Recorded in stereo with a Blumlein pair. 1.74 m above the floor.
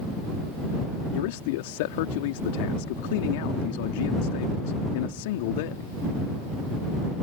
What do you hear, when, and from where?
1.1 s a man speaking: 50° left